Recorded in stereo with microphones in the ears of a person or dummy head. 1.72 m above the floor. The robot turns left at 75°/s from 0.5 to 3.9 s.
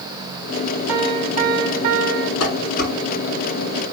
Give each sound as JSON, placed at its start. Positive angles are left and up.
{"t": 0.9, "sound": "a piano", "azimuth_deg": -20, "distance_m": 1.4}
{"t": 2.4, "sound": "dishes clattering", "side_deg": 75, "distance_m": 6.5}